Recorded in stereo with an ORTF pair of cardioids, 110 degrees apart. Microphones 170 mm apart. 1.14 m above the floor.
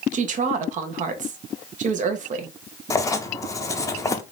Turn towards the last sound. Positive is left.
turn(degrees=20)